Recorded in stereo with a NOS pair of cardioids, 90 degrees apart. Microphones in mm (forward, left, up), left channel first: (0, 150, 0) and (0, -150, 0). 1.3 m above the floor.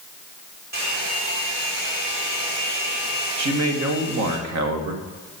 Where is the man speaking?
65° right, 1.5 m.